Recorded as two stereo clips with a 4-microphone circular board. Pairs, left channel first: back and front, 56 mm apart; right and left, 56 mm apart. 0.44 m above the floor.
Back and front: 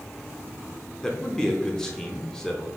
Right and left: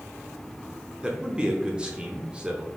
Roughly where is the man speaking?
Behind left.